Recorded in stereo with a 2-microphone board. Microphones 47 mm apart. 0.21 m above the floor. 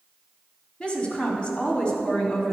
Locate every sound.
0.8 s a woman speaking: 25° left (ahead or behind), 1.8 m